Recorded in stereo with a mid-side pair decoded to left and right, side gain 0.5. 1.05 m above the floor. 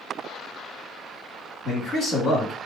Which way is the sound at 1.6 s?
55° left.